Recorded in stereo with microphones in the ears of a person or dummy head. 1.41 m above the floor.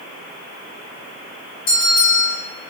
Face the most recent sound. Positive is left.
turn(degrees=60)  # may be behind; listen again after turning